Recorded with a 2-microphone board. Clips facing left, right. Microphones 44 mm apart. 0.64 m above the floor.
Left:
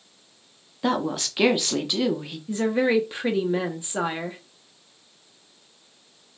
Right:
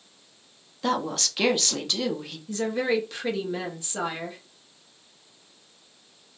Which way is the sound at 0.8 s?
15° left (ahead or behind).